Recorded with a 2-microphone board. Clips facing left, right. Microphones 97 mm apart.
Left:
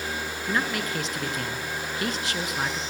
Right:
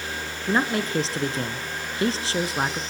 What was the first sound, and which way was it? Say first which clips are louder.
A man speaking: right 5 dB; 30° right (ahead or behind).